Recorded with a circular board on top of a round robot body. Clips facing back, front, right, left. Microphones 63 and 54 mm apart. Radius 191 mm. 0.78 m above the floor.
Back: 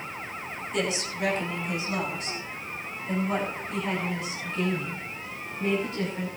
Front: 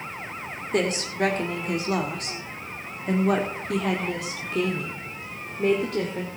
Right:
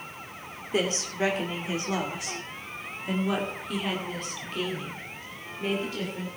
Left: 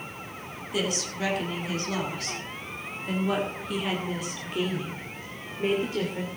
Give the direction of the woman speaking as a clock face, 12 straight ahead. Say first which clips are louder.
Front 5 dB, right 2 dB; 1 o'clock.